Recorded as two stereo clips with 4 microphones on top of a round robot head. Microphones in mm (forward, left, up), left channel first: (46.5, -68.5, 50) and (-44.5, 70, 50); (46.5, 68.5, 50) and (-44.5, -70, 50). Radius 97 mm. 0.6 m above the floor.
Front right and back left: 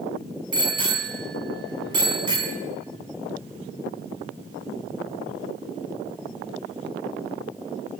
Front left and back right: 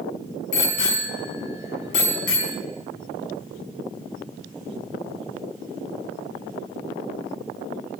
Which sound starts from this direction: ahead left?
A bicycle bell, at 0.5 s.